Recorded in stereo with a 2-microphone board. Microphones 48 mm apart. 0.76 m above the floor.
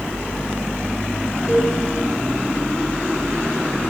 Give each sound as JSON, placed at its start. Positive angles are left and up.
{"t": 1.5, "sound": "a cowbell", "side_deg": -35, "distance_m": 3.5}